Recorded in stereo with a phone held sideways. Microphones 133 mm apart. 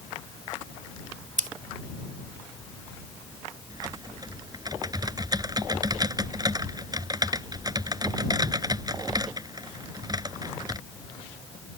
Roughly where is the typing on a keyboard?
Right.